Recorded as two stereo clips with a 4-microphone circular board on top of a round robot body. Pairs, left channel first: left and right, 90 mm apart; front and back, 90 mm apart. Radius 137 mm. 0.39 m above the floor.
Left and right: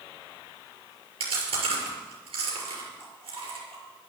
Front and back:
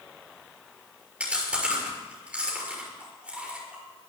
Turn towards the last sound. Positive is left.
turn(degrees=-100)